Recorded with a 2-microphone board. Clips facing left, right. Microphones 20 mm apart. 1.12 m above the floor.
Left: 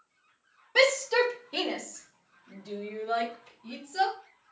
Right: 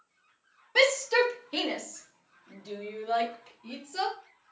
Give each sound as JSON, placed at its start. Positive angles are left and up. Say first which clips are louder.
{"t": 0.8, "sound": "a shout", "louder": "even", "side_deg": -5, "distance_m": 1.0}